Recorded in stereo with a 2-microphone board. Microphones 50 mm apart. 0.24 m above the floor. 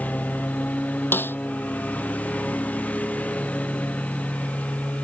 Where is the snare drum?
45° left (ahead or behind).